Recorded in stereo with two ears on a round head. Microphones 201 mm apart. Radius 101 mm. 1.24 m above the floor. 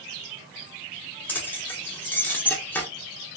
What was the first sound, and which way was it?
Keys jangling, 10° left (ahead or behind).